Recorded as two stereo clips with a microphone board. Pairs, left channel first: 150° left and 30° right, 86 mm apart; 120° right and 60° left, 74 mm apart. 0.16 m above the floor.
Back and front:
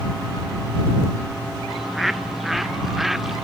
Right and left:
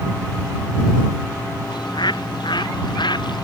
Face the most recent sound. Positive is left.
turn(degrees=-115)